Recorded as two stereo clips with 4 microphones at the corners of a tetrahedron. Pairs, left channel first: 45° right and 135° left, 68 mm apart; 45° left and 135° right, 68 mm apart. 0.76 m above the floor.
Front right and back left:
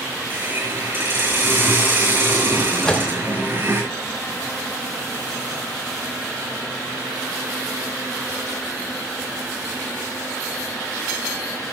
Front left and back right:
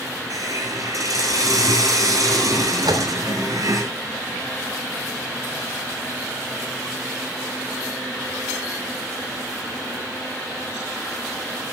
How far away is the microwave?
About 1.9 m.